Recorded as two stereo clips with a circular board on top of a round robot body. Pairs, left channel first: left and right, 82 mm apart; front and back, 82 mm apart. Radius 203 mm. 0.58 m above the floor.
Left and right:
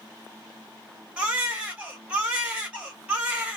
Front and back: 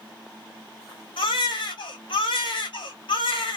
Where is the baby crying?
15° right, 1.5 m.